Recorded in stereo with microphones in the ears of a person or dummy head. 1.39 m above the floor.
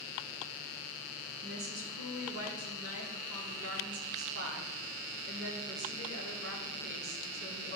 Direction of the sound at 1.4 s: 80° right.